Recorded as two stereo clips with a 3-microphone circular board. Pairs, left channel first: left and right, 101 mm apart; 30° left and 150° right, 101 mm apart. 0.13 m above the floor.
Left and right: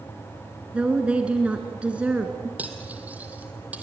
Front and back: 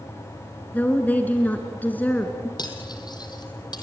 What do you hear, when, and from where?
0.7 s a woman speaking: 25° right, 1.6 m
2.6 s cutlery clinking: 15° right, 2.5 m